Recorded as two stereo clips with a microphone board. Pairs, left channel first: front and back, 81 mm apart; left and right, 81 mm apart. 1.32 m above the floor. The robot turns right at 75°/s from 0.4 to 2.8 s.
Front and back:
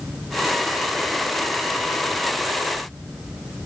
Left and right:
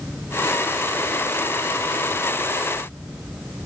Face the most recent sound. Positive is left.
No sound to turn to.